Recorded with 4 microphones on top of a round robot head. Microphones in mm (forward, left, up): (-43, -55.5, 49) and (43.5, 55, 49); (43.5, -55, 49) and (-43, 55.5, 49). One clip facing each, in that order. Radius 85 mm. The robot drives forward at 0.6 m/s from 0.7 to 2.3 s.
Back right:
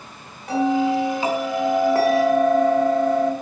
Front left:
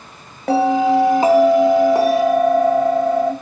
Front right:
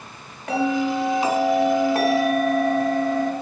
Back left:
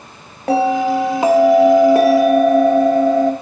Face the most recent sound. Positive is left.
turn(degrees=135)